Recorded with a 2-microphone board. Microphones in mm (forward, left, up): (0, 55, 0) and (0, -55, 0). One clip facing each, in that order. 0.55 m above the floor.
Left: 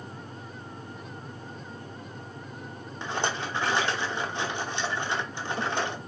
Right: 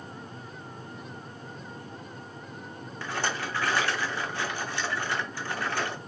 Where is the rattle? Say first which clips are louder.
Left 2 dB; 20° left (ahead or behind), 0.7 m.